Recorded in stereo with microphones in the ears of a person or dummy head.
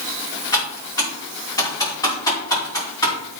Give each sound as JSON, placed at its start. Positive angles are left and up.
{"t": 0.5, "sound": "typing on a keyboard", "side_deg": 20, "distance_m": 5.0}